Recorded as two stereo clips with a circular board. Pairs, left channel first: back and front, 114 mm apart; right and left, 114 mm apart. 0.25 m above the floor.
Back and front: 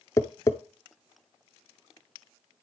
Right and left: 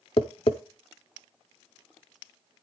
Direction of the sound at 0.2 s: 120° right.